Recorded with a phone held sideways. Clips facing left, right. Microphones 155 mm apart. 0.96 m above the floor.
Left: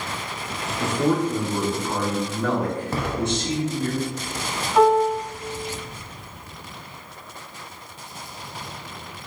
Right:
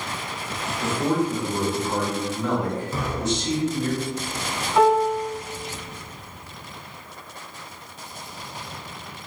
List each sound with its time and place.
0.8 s a man speaking: 75° left (ahead or behind), 1.5 m; by 3.9 s 55° left (ahead or behind), 2.5 m
2.9 s an explosion: 65° left (ahead or behind), 0.6 m
4.8 s a piano: 10° left (ahead or behind), 1.4 m